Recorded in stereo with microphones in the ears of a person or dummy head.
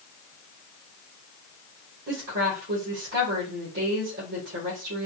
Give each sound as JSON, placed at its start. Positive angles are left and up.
{"t": 2.1, "sound": "a woman speaking", "side_deg": -55, "distance_m": 1.5}